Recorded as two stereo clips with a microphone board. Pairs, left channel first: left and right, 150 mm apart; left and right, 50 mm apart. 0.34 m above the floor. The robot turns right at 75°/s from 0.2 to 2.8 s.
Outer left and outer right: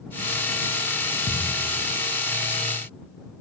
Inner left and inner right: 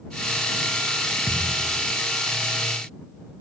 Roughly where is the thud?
Ahead left.